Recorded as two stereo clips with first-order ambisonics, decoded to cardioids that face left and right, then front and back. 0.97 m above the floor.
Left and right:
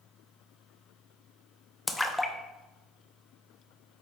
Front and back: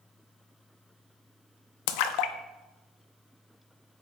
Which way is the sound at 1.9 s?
5° left.